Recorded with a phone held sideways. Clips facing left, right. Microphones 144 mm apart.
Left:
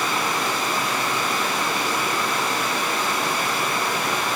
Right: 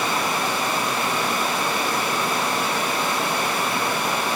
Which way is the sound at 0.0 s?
25° right (ahead or behind).